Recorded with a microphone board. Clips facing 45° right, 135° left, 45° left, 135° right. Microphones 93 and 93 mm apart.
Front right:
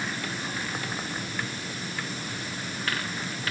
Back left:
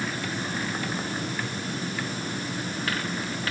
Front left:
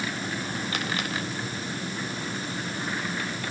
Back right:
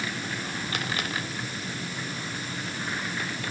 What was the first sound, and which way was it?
Only background noise.